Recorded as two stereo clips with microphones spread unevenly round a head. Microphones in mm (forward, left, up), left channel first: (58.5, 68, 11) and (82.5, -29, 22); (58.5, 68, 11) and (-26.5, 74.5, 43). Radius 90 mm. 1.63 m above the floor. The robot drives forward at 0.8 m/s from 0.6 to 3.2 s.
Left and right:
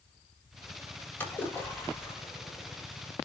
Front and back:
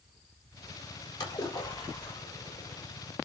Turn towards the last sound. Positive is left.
turn(degrees=45)